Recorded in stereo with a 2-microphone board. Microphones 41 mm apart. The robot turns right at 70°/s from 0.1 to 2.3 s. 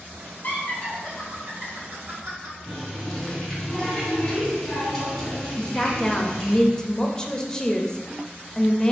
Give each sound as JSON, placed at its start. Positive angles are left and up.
{"t": 0.4, "sound": "laughter", "side_deg": 50, "distance_m": 1.4}
{"t": 2.7, "sound": "a running tap", "side_deg": 15, "distance_m": 1.9}
{"t": 5.6, "sound": "a woman speaking", "side_deg": 15, "distance_m": 0.5}